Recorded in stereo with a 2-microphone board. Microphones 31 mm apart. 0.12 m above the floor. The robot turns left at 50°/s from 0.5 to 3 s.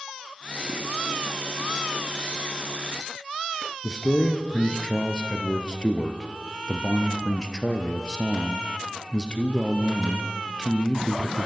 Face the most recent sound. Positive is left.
turn(degrees=25)  # may be behind; listen again after turning